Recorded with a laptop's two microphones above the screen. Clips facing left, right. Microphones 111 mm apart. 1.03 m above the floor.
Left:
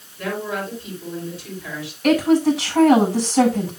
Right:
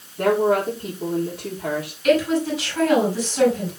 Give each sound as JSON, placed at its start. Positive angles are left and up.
{"t": 0.2, "sound": "a woman speaking", "side_deg": -65, "distance_m": 2.5}
{"t": 2.0, "sound": "a woman speaking", "side_deg": 85, "distance_m": 7.5}